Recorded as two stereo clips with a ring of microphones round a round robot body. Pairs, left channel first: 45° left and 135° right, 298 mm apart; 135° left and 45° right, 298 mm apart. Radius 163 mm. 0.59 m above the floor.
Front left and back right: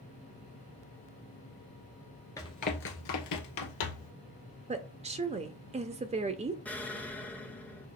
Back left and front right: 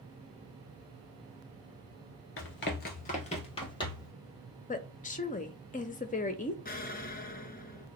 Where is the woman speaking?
175° left, 0.6 m.